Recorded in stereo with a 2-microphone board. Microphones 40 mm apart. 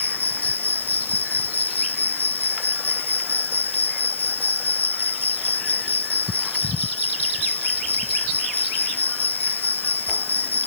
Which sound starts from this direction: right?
An insect, at 0.0 s.